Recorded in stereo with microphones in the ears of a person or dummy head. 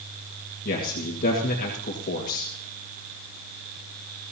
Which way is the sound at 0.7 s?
50° left (ahead or behind).